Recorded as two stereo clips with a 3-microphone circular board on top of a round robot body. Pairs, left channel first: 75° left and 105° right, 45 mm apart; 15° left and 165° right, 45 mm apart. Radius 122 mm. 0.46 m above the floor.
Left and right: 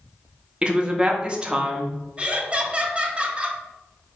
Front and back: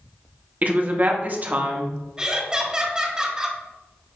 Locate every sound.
0.6 s a woman speaking: 160° right, 0.8 m
2.2 s laughter: 120° right, 1.0 m